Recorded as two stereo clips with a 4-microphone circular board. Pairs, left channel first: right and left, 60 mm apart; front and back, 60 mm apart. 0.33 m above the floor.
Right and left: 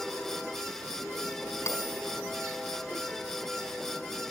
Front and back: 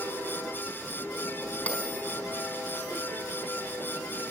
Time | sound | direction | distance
1.7 | a bell | 60° right | 4 m